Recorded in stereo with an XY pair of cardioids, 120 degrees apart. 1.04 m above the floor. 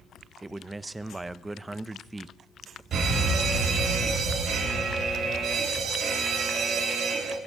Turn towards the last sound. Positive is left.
turn(degrees=-55)